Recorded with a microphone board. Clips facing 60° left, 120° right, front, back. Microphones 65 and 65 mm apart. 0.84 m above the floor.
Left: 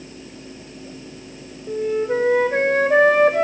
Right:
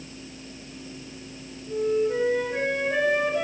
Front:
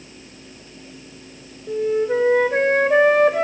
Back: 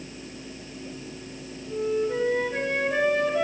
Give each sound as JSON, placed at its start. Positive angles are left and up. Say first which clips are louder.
{"t": 1.7, "sound": "a flute", "louder": "left 2 dB, front 6 dB", "azimuth_deg": 30, "distance_m": 2.5}